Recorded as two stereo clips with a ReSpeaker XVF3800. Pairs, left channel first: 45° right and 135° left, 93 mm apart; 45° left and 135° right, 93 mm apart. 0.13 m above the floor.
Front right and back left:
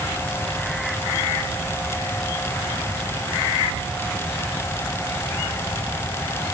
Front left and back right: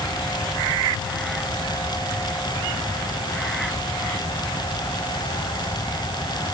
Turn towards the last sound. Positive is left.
No sound to turn to.